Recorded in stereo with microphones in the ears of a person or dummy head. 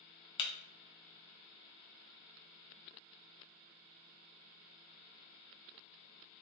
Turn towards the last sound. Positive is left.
turn(degrees=35)  # may be behind; listen again after turning